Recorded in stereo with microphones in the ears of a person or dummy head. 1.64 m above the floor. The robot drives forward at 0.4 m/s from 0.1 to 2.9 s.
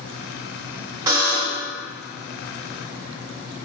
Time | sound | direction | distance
1.1 | a buzzer | 15° right (ahead or behind) | 1.4 m